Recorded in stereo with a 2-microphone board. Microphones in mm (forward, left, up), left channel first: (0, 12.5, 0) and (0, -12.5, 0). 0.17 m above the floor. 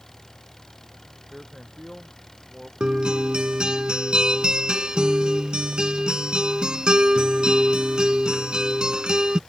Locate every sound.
0.0 s an engine running: 10° left (ahead or behind)
1.3 s a man speaking: 10° left (ahead or behind)
2.8 s a guitar: 35° right (ahead or behind)